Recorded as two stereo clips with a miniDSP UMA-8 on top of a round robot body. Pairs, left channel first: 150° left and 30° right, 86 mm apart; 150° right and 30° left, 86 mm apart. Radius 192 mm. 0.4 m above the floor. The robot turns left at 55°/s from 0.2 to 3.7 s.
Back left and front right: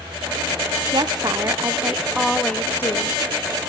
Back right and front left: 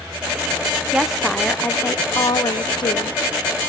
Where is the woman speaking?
45° right, 1.5 m; by 3.2 s 170° right, 1.5 m.